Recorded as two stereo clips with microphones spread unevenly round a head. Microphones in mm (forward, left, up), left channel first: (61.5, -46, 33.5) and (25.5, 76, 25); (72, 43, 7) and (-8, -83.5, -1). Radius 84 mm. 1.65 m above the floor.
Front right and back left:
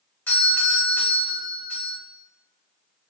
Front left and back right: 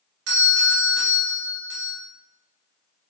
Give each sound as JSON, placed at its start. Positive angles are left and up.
{"t": 0.3, "sound": "a doorbell", "azimuth_deg": -155, "distance_m": 1.7}